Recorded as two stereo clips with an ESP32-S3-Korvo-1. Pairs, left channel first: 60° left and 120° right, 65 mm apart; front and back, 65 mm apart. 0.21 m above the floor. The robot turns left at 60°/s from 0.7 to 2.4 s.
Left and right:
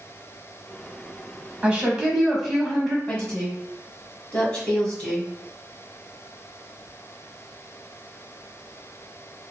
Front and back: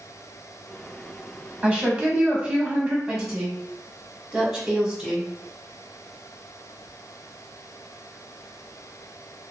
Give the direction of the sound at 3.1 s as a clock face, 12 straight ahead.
8 o'clock.